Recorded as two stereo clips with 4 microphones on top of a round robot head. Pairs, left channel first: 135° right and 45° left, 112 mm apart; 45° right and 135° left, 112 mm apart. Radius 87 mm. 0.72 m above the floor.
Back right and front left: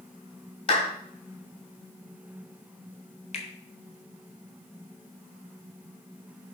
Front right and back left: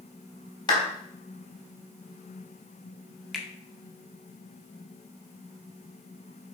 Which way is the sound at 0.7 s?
100° right.